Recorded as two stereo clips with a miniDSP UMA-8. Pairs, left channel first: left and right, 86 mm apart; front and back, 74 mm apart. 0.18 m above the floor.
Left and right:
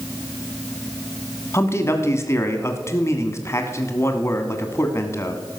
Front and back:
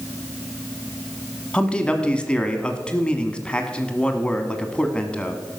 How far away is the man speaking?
About 1.4 m.